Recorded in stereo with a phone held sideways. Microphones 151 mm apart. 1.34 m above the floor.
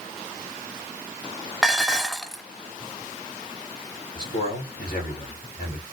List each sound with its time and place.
1.6 s dishes clattering: centre (ahead or behind), 0.7 m
4.2 s a man speaking: 80° left, 3 m